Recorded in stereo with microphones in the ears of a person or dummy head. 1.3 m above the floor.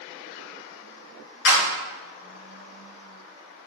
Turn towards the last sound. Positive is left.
turn(degrees=65)  # may be behind; listen again after turning